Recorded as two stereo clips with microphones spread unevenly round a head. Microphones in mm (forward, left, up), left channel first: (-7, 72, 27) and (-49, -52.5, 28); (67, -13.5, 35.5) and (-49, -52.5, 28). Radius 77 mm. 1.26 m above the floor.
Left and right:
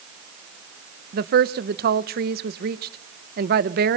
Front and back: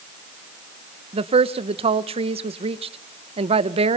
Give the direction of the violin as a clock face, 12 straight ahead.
I don't hear a violin.